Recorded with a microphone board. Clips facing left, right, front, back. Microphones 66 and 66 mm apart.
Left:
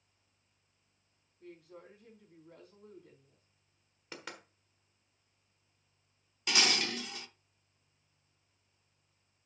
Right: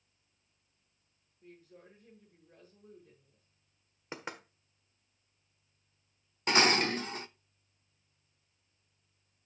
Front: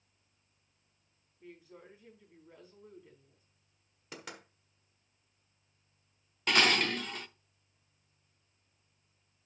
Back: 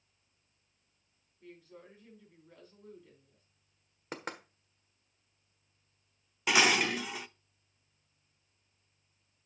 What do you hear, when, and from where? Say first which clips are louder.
1.4 s a woman speaking: left 4 dB, even; 80° left, 4.5 m
4.1 s knocking: right 4 dB, back 6 dB; 150° right, 1.4 m
6.5 s dishes clattering: right 6 dB, back 1 dB; 105° right, 0.5 m